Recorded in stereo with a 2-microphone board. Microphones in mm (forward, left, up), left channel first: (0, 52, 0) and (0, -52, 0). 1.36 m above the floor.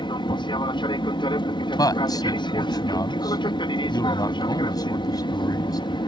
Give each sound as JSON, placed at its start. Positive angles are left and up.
{"t": 0.0, "sound": "an aircraft", "side_deg": 50}
{"t": 1.8, "sound": "a man speaking", "side_deg": 40}